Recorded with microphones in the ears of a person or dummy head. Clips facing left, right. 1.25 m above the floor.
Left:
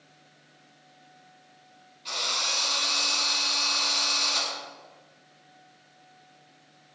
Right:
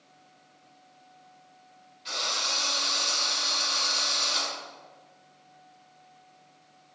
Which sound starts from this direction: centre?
A drill, at 2.0 s.